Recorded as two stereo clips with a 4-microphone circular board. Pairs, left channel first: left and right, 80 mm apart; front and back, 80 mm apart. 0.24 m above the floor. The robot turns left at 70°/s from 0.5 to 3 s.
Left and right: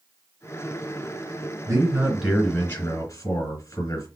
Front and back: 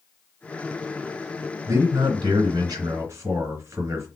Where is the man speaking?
140° right, 3 m; by 4.1 s 130° left, 3 m.